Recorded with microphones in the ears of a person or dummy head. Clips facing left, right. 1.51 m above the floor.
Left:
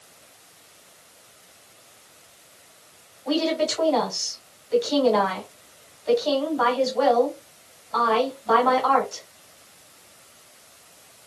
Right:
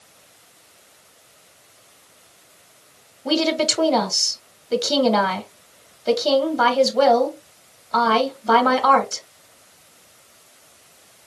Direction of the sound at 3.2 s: 75° right (ahead or behind).